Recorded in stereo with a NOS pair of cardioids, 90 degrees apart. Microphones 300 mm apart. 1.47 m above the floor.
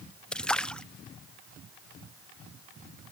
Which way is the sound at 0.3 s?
5° left.